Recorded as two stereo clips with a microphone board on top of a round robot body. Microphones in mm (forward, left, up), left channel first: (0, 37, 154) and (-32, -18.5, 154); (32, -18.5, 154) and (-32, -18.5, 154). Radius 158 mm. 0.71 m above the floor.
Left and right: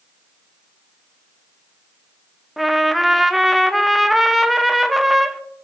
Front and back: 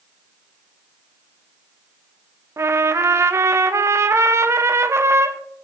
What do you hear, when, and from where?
2.6 s a trumpet: 150° left, 0.6 m